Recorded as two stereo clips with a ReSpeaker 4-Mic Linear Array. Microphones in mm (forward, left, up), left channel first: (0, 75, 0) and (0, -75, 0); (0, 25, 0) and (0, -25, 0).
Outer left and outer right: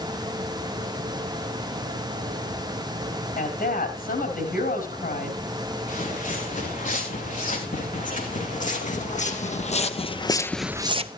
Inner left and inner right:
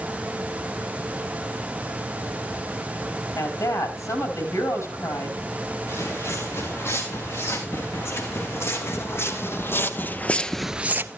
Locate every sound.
3.4 s a woman speaking: 80° left, 4.5 m
5.9 s footsteps: 60° left (ahead or behind), 6 m; by 11.1 s 45° right (ahead or behind), 0.7 m